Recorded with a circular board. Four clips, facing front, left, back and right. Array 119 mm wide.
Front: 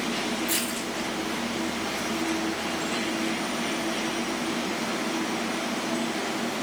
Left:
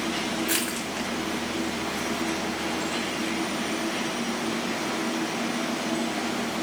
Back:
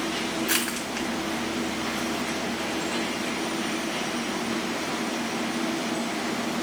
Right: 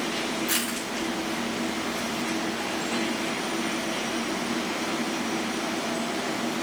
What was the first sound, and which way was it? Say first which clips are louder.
Crushing: left 1 dB, back 1 dB; 170° left.